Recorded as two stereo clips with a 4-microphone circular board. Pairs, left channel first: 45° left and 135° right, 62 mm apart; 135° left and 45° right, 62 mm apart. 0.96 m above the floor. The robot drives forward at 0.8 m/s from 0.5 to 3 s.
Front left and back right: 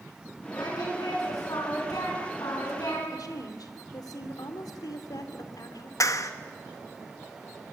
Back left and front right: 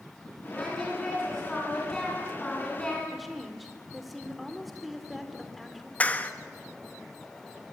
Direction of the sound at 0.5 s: 50° left.